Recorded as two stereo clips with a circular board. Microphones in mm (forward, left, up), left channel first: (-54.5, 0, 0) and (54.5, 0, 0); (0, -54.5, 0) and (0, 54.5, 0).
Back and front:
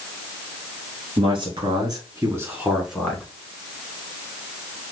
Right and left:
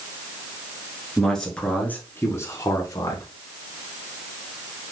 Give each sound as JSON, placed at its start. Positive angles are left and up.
{"t": 1.2, "sound": "a man speaking", "azimuth_deg": -5, "distance_m": 1.7}